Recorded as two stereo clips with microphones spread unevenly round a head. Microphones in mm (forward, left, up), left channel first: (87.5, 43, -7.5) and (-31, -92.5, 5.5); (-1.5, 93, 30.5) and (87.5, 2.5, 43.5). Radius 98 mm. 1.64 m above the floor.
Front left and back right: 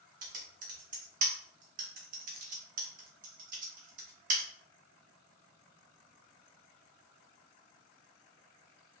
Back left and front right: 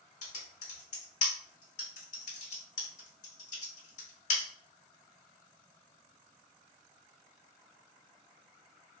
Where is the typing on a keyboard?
175° left, 0.6 m.